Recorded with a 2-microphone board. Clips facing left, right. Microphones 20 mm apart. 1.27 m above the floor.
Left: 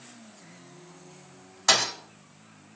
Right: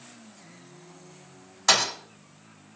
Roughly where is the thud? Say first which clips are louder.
Right 1 dB; centre.